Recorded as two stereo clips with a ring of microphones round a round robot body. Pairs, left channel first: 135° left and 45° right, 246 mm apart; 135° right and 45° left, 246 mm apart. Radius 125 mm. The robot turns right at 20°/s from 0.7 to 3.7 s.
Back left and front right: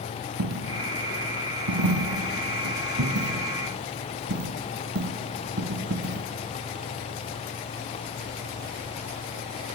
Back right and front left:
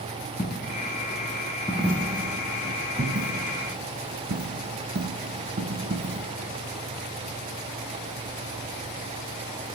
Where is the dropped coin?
65° right, 1.3 m; by 6.3 s 5° right, 1.3 m.